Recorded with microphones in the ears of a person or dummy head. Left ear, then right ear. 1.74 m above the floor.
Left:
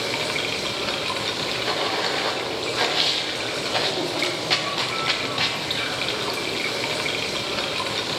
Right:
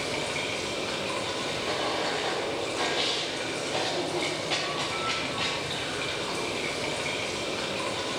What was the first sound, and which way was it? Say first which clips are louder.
Running water: left 5 dB; 30° left (ahead or behind).